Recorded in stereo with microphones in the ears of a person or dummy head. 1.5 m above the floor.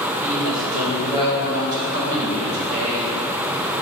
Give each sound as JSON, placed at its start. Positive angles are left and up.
{"t": 0.2, "sound": "a woman speaking", "side_deg": -45, "distance_m": 3.0}